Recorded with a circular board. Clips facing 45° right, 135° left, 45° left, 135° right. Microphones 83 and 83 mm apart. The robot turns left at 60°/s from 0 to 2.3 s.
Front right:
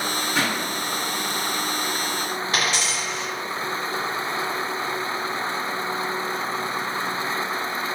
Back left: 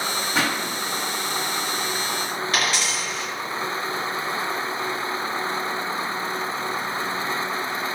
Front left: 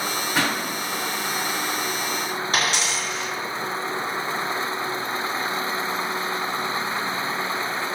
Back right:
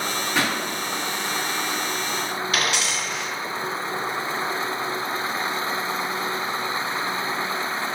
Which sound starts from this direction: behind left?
A pop, at 0.3 s.